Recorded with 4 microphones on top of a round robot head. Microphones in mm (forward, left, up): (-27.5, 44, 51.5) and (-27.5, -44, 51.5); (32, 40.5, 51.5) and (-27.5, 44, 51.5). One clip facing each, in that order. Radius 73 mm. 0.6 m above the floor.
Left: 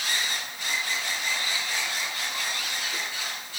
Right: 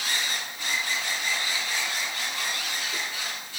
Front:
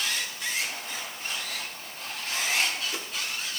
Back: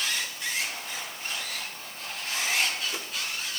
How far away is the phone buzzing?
No phone buzzing in this recording.